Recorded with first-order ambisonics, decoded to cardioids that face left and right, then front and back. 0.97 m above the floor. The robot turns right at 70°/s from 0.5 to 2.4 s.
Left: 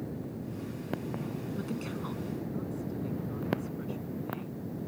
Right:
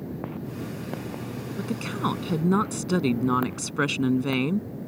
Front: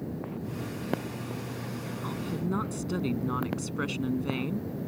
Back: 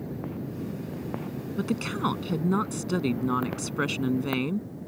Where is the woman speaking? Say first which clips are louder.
Right 13 dB, back 8 dB; 165° right; by 4.7 s 105° right.